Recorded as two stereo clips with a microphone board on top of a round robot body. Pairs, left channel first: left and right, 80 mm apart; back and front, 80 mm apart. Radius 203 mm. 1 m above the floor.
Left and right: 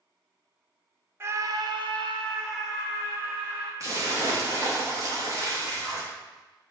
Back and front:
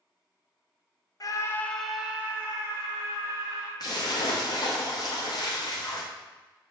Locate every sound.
1.2 s a scream: 150° right, 0.9 m; by 3.7 s 50° right, 2.5 m
3.8 s a splash: 145° right, 0.8 m